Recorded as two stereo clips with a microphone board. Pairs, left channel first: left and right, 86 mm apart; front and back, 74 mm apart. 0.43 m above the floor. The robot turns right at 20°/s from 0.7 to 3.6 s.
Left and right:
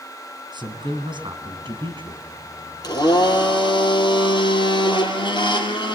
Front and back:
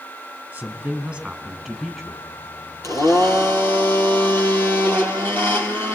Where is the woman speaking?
110° right, 4 m; by 2.2 s 80° right, 4 m.